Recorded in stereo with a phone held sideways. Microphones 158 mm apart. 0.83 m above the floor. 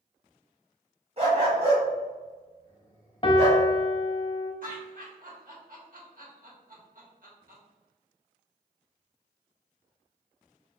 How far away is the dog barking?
About 1.8 m.